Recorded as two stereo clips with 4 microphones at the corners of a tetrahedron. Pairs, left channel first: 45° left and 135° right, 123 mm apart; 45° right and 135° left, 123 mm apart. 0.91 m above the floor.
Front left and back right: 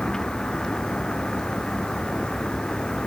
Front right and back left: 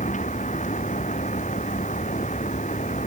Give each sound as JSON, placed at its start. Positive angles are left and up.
{"t": 0.0, "sound": "a vehicle", "azimuth_deg": -40}